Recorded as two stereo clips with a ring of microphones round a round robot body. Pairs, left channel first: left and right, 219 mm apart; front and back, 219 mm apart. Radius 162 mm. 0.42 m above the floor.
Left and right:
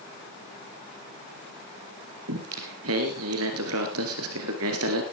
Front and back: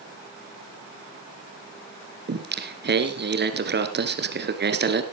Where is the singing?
135° right, 1.9 m.